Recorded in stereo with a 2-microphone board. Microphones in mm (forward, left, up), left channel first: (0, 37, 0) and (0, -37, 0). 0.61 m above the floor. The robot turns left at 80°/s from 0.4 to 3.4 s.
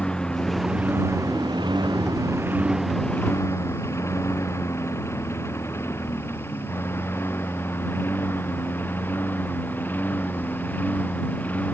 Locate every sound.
0.0 s a lawn mower: 10° left (ahead or behind); by 11.7 s 25° left (ahead or behind)